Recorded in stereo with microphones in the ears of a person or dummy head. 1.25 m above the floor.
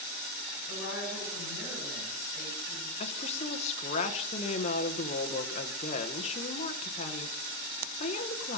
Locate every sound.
0.7 s a woman speaking: 25° right (ahead or behind), 6 m
3.0 s a woman speaking: 30° left (ahead or behind), 1.0 m